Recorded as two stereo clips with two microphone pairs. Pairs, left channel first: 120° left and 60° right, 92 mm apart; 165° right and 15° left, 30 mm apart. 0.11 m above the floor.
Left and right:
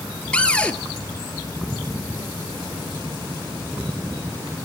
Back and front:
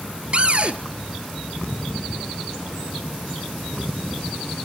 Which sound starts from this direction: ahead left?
A cupboard door, at 0.3 s.